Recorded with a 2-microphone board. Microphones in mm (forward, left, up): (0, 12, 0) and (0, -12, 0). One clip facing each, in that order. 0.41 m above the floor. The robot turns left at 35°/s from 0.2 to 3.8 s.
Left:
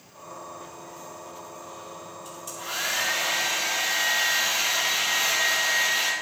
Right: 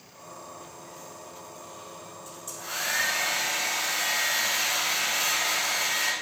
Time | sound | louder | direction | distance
2.2 | a hair dryer | left 3 dB | 100° left | 6 m